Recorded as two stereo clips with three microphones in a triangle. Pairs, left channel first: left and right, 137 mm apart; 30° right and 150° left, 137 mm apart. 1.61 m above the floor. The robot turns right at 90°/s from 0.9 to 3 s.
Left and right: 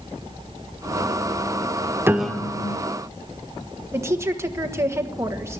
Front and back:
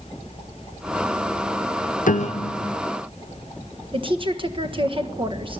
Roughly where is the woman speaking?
Behind.